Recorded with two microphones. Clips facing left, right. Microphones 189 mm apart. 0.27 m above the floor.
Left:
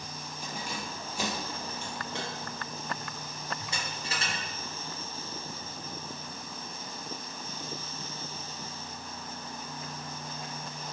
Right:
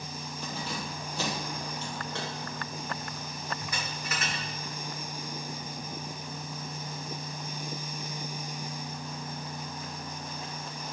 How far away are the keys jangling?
About 6 m.